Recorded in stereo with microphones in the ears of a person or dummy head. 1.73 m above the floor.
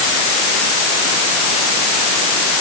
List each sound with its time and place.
Only background noise.